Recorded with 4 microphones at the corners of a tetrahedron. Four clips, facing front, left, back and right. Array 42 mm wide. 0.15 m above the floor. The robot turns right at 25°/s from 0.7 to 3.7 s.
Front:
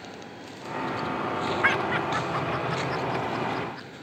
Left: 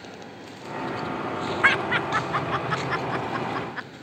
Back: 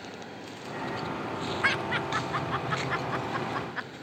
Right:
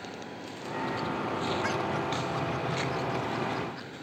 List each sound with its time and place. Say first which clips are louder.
1.6 s laughter: left 9 dB, front 3 dB; 75° left; by 3.9 s 130° left